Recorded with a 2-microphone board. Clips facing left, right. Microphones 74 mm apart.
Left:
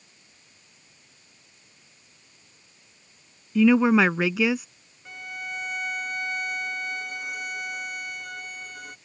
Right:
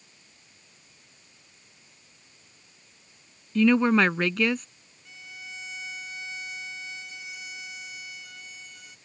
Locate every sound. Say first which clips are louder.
3.5 s a woman speaking: left 2 dB; 5° left (ahead or behind)
5.0 s a violin: left 8 dB; 55° left (ahead or behind)